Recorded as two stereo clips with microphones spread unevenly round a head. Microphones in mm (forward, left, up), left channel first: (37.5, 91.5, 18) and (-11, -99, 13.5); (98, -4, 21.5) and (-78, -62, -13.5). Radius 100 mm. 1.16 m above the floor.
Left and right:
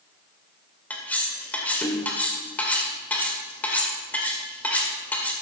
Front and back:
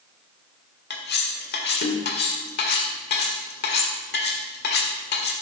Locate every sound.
0.9 s cutlery clinking: 5° right, 2 m